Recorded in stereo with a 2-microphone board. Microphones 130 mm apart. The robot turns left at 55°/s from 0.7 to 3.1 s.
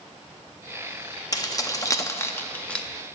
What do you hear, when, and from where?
1.3 s keys jangling: 30° left (ahead or behind), 0.6 m; by 2.9 s 5° left (ahead or behind), 0.6 m